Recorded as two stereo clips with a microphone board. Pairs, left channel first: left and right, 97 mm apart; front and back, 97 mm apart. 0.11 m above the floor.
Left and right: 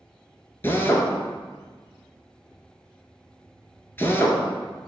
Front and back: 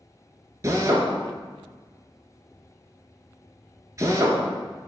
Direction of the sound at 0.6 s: 145° left.